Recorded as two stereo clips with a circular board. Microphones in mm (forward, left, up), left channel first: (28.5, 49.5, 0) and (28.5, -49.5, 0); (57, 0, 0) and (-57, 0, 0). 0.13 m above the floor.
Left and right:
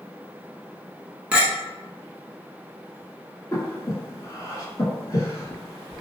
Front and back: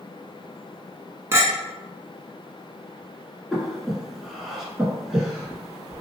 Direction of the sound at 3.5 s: 90° left.